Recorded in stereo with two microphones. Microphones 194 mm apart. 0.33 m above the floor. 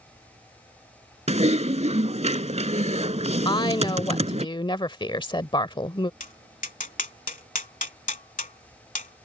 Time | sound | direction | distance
1.3 | typing on a keyboard | 35° right (ahead or behind) | ?
3.5 | a woman speaking | 25° left (ahead or behind) | ?
6.2 | tapping | 40° left (ahead or behind) | ?